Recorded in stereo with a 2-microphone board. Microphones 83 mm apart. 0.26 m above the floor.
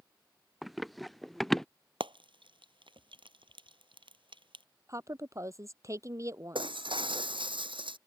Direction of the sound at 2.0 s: 80° right.